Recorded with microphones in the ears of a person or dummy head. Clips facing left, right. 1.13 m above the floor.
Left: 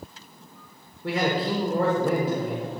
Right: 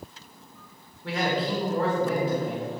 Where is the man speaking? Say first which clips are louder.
Left 2 dB; 35° left (ahead or behind), 1.4 m.